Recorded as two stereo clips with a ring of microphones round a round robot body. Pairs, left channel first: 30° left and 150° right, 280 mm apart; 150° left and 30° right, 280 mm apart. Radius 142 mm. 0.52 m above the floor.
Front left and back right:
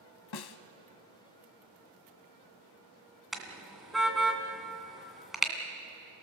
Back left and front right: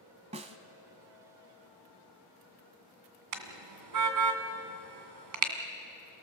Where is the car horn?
60° right, 2 m.